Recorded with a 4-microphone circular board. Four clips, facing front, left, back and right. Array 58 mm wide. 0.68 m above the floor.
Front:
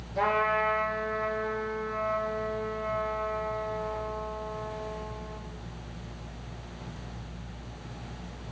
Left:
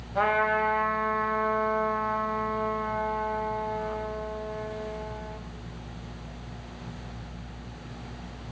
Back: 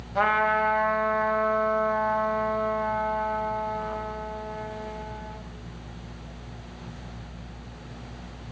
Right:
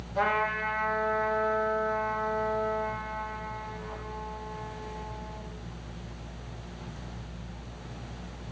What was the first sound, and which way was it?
A trumpet, 155° left.